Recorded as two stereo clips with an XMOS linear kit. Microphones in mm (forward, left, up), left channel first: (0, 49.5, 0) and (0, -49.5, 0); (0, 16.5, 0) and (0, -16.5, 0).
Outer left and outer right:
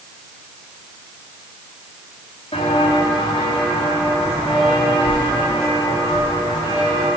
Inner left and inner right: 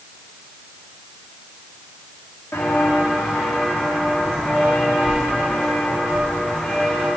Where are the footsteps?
75° left (ahead or behind), 4 m; by 7.1 s 50° left (ahead or behind), 7 m.